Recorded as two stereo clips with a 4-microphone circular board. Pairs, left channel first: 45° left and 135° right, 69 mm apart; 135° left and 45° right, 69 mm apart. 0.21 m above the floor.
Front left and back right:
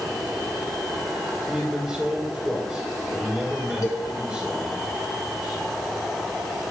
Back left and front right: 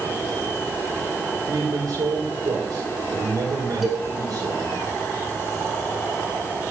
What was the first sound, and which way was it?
A man speaking, 55° right.